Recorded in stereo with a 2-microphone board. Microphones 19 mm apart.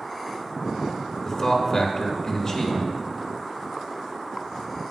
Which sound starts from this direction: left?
A man speaking, at 1.2 s.